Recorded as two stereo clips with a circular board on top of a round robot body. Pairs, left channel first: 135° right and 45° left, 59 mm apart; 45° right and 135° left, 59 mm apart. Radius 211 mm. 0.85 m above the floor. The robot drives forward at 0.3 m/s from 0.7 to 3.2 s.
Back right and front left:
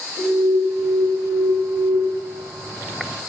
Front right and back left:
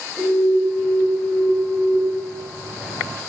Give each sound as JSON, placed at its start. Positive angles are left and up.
{"t": 0.2, "sound": "an alarm", "azimuth_deg": 70, "distance_m": 1.0}